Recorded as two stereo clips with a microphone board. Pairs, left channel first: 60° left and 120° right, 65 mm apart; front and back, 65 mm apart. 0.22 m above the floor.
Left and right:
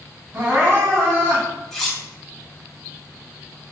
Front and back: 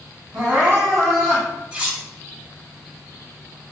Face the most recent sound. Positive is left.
turn(degrees=140)